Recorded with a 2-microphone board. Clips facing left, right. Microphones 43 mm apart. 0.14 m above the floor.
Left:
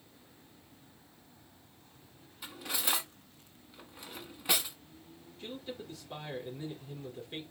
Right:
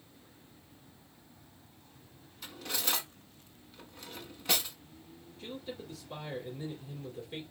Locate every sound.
2.4 s cutlery clinking: 10° left (ahead or behind), 0.9 m
5.4 s a man speaking: 10° left (ahead or behind), 2.5 m